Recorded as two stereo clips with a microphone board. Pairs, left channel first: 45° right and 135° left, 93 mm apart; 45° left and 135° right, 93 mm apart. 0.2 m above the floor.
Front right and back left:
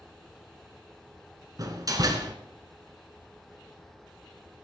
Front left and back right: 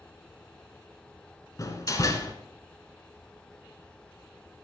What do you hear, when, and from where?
1.6 s a door slam: 95° left, 1.5 m